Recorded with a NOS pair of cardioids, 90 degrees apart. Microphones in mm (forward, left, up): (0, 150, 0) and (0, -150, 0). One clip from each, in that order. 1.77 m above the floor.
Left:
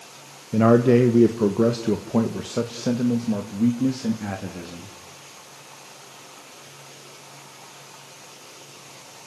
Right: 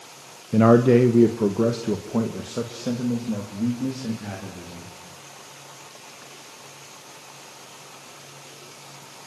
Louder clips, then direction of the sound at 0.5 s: Right 1 dB; 10° right.